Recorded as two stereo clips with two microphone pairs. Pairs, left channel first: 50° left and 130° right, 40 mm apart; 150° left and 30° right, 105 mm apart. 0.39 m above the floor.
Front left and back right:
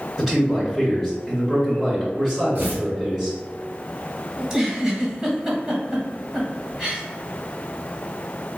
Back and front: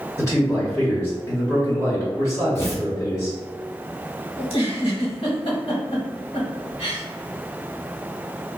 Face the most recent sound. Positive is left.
turn(degrees=170)